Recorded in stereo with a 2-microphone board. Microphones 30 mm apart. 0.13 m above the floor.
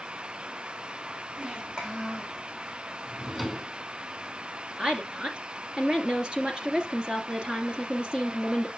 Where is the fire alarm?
I don't hear a fire alarm.